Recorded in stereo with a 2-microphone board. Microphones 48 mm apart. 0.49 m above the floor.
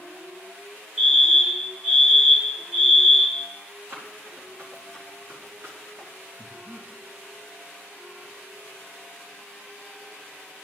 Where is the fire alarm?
25° right (ahead or behind), 2 m.